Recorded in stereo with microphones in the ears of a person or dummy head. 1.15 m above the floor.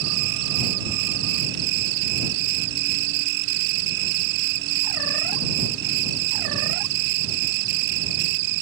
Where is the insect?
55° right (ahead or behind).